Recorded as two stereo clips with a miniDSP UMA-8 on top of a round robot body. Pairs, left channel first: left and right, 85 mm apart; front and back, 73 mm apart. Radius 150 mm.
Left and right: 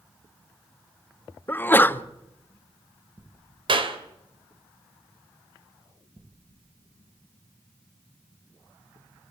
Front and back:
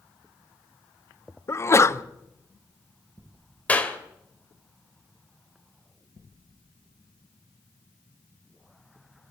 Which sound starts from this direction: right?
A clap, at 3.7 s.